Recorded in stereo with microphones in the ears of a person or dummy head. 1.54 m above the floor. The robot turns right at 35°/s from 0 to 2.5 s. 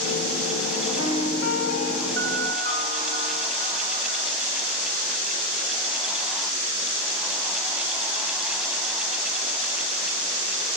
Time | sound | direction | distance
1.0 | a piano | 95° left | 2.5 m